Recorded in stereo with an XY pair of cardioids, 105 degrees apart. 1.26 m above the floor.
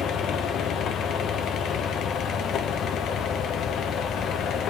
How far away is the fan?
About 1.0 m.